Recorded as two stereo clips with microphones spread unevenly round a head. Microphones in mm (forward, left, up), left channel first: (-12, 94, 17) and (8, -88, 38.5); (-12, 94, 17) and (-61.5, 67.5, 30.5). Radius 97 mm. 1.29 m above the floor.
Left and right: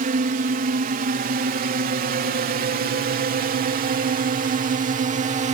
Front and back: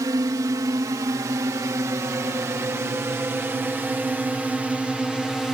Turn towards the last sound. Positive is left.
turn(degrees=-50)